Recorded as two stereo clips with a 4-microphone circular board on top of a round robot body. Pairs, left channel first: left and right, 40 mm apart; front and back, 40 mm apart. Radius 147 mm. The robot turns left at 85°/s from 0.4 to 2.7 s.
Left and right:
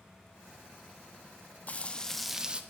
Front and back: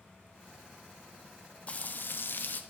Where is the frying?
50° left, 0.7 m; by 2.6 s 30° right, 0.7 m.